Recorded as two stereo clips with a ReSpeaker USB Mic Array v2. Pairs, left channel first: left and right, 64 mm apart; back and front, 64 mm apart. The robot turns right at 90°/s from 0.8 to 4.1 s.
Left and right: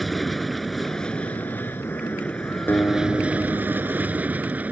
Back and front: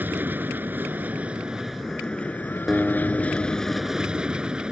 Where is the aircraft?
Straight ahead; by 4.7 s 60° right.